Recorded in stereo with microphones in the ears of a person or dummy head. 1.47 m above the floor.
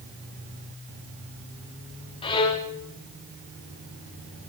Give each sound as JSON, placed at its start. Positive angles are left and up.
{"t": 2.2, "sound": "a violin", "side_deg": 30, "distance_m": 1.4}